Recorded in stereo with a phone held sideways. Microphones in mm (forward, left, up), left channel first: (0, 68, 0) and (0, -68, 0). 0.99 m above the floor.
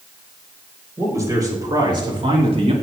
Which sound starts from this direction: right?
A man speaking, at 1.0 s.